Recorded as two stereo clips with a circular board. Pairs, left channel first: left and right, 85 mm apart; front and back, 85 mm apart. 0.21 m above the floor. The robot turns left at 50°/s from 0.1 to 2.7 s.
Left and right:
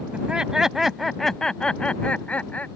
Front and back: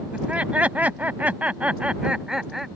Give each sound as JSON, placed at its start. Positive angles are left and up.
{"t": 0.1, "sound": "laughter", "azimuth_deg": -135}